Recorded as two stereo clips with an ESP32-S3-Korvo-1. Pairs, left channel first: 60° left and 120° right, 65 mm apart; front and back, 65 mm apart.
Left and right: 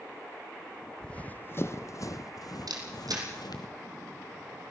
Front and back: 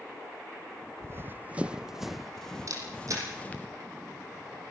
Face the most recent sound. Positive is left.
turn(degrees=-140)